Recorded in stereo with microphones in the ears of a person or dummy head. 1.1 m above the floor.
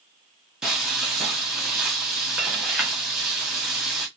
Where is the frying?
5° right (ahead or behind), 0.7 m.